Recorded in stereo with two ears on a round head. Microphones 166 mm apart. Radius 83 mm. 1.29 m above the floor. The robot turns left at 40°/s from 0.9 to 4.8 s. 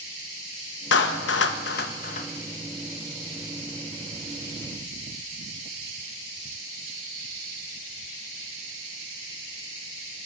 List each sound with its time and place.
0.9 s a clap: 70° left (ahead or behind), 0.9 m; by 2.3 s 40° left (ahead or behind), 0.9 m